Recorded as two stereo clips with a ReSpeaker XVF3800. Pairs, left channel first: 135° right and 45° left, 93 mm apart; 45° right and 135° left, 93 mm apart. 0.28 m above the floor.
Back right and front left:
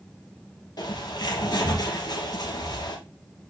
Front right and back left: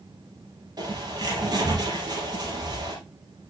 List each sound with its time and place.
0.8 s a bird: straight behind, 3 m